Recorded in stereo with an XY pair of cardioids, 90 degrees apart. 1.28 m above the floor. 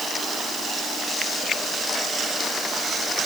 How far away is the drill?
No drill in this recording.